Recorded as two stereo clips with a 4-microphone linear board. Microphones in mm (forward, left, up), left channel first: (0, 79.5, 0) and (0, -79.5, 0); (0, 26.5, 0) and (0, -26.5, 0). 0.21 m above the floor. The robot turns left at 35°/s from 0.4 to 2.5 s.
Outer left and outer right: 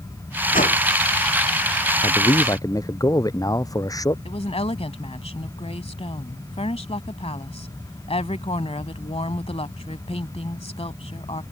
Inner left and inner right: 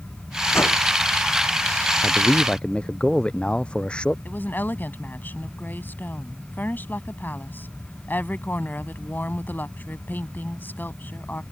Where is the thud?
No thud in this recording.